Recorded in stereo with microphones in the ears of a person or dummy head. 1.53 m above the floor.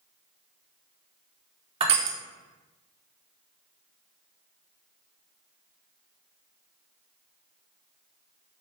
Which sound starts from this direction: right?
Crushing, at 1.8 s.